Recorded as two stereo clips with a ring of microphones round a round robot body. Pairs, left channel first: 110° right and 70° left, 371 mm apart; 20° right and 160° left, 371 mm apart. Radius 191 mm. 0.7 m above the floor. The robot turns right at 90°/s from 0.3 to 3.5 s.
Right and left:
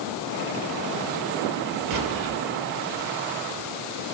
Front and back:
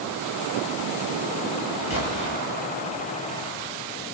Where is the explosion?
20° left, 6 m; by 2.4 s 65° left, 6 m.